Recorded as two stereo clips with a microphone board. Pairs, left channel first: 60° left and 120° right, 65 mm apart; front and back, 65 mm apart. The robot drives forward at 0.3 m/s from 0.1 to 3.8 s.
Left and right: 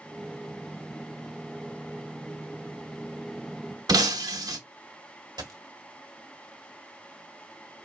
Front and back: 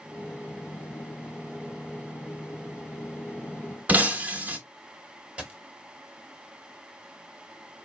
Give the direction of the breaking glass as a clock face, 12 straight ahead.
4 o'clock.